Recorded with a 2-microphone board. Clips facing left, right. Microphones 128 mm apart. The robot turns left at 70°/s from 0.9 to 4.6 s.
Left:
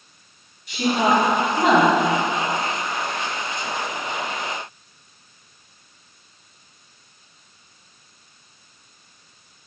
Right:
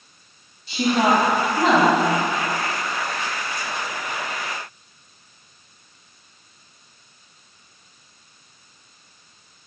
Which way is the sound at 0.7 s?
130° right.